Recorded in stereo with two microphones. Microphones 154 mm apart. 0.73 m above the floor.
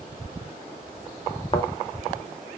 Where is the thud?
35° left (ahead or behind), 0.6 m.